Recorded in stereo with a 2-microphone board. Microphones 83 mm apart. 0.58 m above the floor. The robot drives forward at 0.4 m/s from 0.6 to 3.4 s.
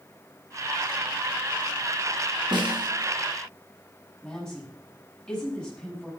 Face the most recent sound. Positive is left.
turn(degrees=5)  # may be behind; listen again after turning